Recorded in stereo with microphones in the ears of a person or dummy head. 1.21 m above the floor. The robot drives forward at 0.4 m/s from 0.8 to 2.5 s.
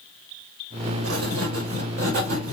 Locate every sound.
1.0 s writing: 75° right (ahead or behind), 1.2 m; by 2.5 s 60° right (ahead or behind), 1.4 m